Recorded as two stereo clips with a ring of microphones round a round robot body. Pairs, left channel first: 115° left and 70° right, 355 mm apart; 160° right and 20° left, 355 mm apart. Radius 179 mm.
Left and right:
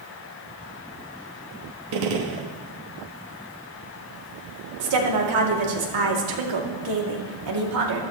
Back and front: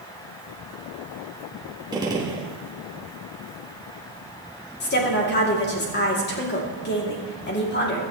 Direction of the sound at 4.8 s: 95° right.